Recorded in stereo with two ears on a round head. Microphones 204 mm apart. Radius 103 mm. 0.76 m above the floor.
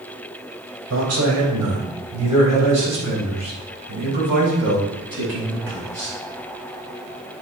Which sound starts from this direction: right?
A man speaking, at 0.9 s.